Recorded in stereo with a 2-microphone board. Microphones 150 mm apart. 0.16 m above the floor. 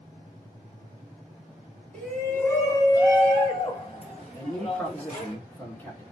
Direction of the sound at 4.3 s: 10° left (ahead or behind).